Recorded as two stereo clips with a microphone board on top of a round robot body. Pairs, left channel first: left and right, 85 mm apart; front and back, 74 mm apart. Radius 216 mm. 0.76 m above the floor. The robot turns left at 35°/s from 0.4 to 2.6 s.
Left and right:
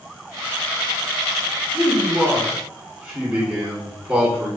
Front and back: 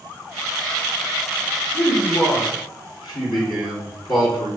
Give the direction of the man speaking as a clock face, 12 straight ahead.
12 o'clock.